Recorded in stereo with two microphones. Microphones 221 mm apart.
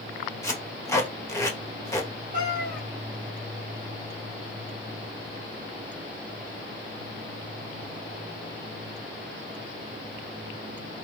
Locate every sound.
0.4 s tape being pulled: 15° left (ahead or behind), 1.0 m
2.3 s a cat meowing: 40° right (ahead or behind), 1.4 m